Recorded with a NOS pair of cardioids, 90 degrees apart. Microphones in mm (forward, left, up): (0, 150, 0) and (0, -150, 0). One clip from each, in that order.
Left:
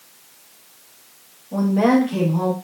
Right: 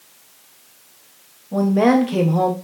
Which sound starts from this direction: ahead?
A woman speaking, at 1.5 s.